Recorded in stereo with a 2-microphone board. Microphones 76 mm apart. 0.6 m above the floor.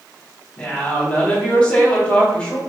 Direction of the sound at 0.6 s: 25° left (ahead or behind).